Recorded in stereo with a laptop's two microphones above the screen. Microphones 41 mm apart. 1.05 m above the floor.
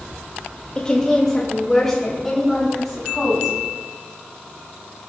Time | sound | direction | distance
0.8 | a woman speaking | 20° left (ahead or behind) | 1.9 m